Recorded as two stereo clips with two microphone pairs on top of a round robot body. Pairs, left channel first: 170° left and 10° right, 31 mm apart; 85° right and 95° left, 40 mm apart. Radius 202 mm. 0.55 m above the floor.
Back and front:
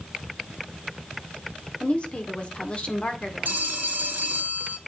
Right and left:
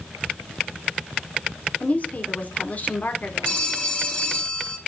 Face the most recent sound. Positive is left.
turn(degrees=-25)